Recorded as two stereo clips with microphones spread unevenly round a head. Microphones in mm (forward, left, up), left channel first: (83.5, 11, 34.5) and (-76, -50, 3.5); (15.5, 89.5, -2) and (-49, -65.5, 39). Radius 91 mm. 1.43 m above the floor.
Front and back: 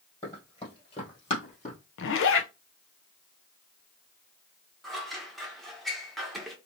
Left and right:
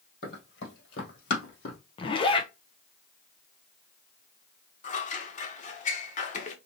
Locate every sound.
0.2 s running footsteps: 80° left, 2 m; by 1.8 s 40° left, 2 m
2.0 s a zipper: 15° left, 0.6 m
4.8 s scissors: 110° left, 0.8 m